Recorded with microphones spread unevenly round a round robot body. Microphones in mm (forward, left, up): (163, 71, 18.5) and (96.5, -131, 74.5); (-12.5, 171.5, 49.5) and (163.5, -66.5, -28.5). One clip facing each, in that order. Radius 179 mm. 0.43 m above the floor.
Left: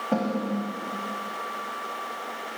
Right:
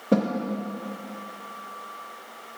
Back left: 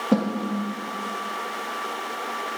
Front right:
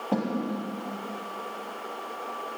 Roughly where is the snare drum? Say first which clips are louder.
Right 4 dB, back left 6 dB; behind.